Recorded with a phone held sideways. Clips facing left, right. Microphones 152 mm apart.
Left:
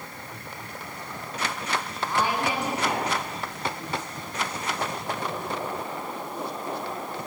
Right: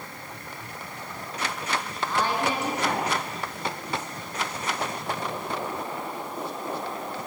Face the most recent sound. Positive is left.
turn(degrees=15)  # may be behind; listen again after turning